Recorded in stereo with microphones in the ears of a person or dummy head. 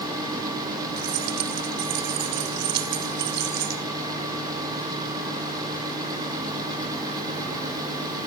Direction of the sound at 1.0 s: 60° right (ahead or behind).